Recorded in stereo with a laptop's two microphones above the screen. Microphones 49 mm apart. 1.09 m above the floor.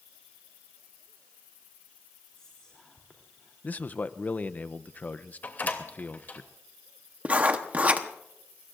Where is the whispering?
15° left (ahead or behind), 3 m.